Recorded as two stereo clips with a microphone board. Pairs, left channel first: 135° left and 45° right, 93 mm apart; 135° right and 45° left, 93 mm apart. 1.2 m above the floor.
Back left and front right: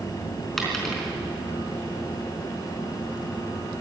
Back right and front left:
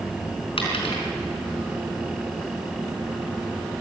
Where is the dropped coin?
135° right, 4 m.